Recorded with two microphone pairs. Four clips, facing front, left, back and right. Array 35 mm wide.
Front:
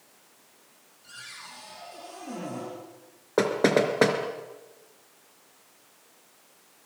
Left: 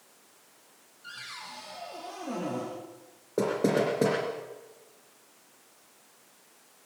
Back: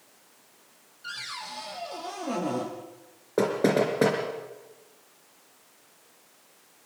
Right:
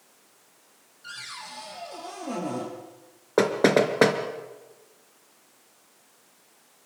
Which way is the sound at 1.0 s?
170° right.